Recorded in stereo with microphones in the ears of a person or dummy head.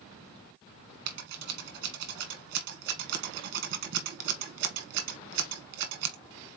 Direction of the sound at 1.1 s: 60° right (ahead or behind).